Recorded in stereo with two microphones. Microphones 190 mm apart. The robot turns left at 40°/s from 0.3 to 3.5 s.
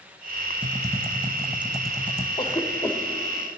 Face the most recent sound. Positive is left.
turn(degrees=5)  # may be behind; listen again after turning